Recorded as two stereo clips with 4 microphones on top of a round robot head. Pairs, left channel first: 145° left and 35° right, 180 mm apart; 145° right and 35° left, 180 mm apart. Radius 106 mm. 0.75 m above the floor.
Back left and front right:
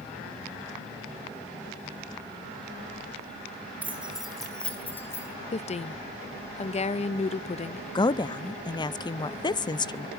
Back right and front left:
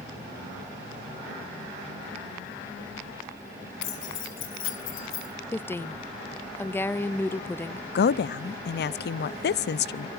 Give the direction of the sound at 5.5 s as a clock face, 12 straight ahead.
7 o'clock.